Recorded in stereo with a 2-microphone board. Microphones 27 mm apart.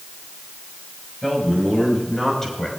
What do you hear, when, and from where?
1.2 s a man speaking: 10° left (ahead or behind), 5.5 m; by 2.7 s 15° left (ahead or behind), 4.5 m